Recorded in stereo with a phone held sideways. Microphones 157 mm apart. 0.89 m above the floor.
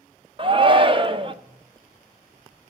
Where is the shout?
35° right (ahead or behind), 0.6 m.